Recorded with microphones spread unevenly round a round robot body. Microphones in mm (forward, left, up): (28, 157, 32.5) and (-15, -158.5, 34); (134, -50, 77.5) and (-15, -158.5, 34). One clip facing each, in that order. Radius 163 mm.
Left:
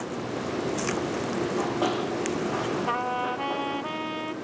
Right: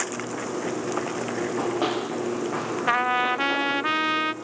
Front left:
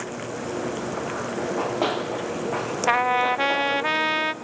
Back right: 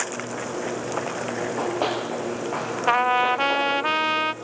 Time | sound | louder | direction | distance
1.4 | running footsteps | right 2 dB, front left 1 dB | 50° right | 10 m
2.9 | a trumpet | right 2 dB, back right 1 dB | 55° right | 0.6 m